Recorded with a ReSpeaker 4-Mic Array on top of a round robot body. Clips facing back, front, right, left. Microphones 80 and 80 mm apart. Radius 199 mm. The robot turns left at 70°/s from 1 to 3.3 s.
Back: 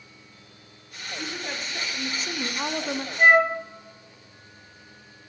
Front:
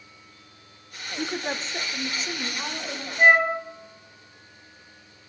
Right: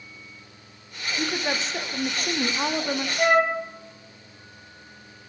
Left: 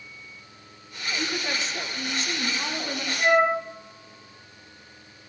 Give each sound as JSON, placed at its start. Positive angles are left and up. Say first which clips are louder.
{"t": 1.2, "sound": "a woman speaking", "louder": "front 5 dB, right 3 dB", "azimuth_deg": -20, "distance_m": 1.1}
{"t": 3.2, "sound": "a flute", "louder": "even, even", "azimuth_deg": -85, "distance_m": 3.0}